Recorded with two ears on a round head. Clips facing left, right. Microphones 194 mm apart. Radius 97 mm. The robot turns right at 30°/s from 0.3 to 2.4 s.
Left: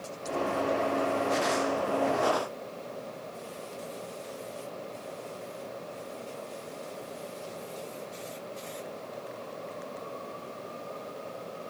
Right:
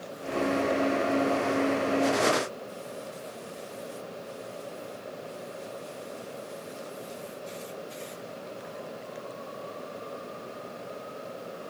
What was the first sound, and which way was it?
Only background noise.